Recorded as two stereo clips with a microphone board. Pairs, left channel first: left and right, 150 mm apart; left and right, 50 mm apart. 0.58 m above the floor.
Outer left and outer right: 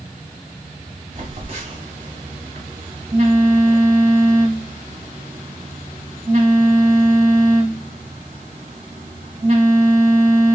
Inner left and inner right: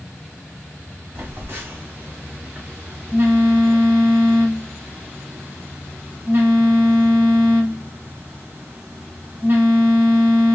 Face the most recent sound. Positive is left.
turn(degrees=-45)  # may be behind; listen again after turning